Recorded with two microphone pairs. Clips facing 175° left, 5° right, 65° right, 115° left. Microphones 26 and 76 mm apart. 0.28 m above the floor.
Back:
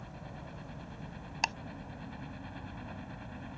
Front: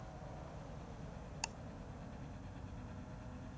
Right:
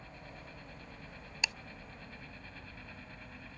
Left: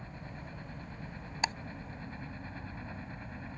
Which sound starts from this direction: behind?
A helicopter, at 0.0 s.